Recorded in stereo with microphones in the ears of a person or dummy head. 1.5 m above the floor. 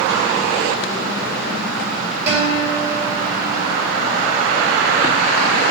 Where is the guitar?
35° right (ahead or behind), 2.5 m.